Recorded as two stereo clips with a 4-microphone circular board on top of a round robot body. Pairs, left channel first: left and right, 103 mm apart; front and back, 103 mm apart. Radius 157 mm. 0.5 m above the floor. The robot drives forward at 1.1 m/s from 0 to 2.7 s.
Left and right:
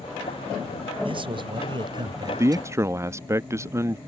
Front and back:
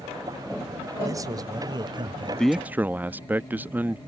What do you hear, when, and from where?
1.1 s a man speaking: 120° right; by 2.7 s 140° right
2.4 s a man speaking: 75° right; by 4.0 s 120° right